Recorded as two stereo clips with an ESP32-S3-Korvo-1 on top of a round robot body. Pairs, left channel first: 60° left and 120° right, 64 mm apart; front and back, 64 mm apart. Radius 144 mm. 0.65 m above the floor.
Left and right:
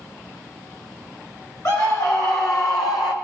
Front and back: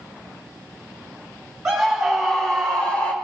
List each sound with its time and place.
1.6 s a scream: 95° left, 3.5 m; by 3.1 s 70° left, 2.5 m